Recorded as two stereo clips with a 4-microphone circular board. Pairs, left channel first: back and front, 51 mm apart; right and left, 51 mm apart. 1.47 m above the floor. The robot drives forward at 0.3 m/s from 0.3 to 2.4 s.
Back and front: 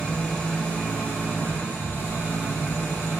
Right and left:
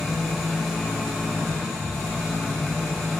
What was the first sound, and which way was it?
An engine running, straight behind.